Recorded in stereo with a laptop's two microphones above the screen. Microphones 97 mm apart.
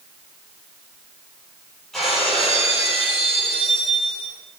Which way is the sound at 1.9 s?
Centre (ahead or behind).